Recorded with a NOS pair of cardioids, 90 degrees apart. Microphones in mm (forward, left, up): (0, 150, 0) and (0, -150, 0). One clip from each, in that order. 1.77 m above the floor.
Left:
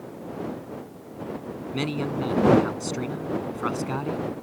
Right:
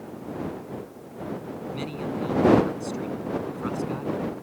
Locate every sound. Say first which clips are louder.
1.7 s a man speaking: left 5 dB; 60° left